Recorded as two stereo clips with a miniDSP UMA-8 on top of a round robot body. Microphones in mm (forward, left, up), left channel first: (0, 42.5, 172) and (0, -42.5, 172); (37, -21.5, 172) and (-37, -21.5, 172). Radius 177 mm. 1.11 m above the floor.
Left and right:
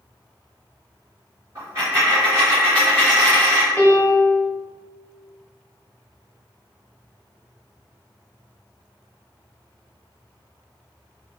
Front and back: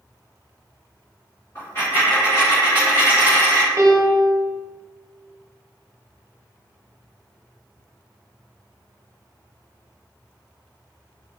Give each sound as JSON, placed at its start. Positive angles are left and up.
{"t": 1.6, "sound": "a dropped coin", "azimuth_deg": -40, "distance_m": 0.9}
{"t": 3.8, "sound": "a piano", "azimuth_deg": 155, "distance_m": 1.0}